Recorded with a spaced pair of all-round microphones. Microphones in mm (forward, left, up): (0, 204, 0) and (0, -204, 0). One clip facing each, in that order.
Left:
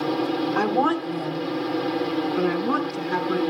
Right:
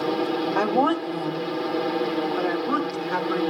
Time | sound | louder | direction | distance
0.6 | a woman speaking | right 2 dB | 25° left (ahead or behind) | 1.4 m